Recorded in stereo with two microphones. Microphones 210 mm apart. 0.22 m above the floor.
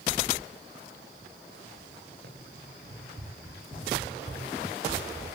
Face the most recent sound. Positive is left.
turn(degrees=-35)  # may be behind; listen again after turning